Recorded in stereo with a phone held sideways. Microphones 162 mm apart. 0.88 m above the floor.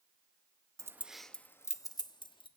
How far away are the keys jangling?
About 0.5 m.